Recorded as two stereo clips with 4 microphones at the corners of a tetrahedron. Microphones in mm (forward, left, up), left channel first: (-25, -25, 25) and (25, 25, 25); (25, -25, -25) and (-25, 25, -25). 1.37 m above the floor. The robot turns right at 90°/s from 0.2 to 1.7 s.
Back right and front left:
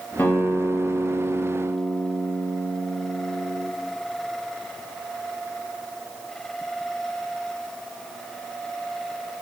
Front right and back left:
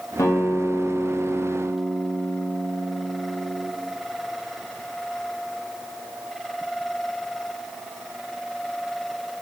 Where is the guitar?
80° right, 0.8 m; by 3.7 s 55° left, 0.8 m.